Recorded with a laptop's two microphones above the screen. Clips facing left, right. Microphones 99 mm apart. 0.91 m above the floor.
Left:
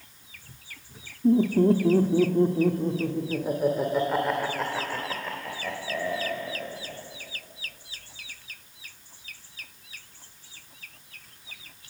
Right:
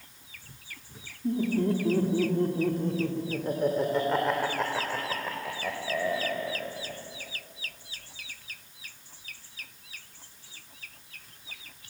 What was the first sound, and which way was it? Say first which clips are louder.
Laughter: left 7 dB; 40° left (ahead or behind).